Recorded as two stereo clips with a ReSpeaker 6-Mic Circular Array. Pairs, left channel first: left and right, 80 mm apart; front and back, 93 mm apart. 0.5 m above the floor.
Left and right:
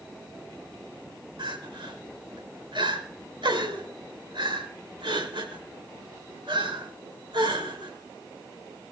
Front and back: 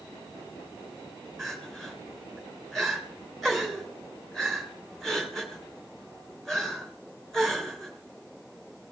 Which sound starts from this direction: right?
Crying, at 1.4 s.